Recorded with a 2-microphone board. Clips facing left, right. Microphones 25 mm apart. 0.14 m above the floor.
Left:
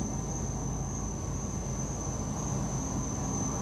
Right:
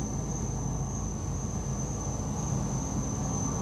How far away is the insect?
About 3 m.